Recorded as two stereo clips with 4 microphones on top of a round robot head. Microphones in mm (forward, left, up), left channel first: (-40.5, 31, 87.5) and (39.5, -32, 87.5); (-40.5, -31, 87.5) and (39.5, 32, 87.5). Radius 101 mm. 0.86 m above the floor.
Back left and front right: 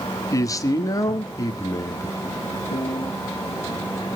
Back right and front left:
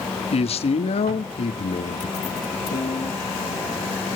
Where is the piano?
175° right, 1.1 m.